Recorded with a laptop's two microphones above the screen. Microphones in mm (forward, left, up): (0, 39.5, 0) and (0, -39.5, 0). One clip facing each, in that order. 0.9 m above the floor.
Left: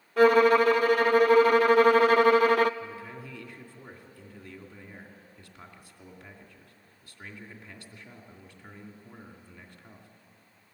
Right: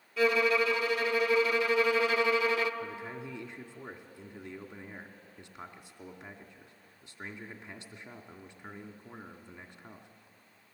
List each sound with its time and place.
0.2 s a violin: 50° left (ahead or behind), 0.6 m
2.8 s a man speaking: 20° right (ahead or behind), 2.5 m